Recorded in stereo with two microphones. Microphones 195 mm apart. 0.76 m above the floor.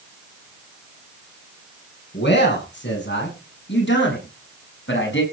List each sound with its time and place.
2.1 s a man speaking: 65° left (ahead or behind), 8 m; by 5.2 s 75° left (ahead or behind), 6.5 m